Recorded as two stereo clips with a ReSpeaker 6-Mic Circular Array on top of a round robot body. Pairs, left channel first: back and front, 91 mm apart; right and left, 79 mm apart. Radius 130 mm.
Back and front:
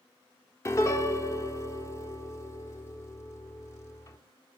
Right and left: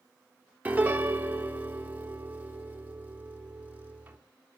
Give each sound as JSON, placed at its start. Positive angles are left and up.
{"t": 0.7, "sound": "a piano", "azimuth_deg": 150, "distance_m": 1.7}